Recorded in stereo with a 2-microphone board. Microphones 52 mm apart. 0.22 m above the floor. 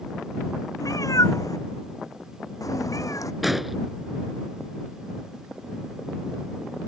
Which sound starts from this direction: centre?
An explosion, at 3.4 s.